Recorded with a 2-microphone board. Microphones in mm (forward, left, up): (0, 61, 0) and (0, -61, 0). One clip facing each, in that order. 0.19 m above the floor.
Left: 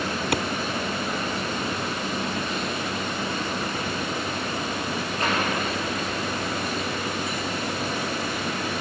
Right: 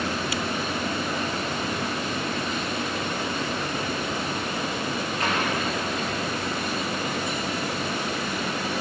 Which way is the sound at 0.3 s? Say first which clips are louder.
Left 4 dB; 55° left (ahead or behind).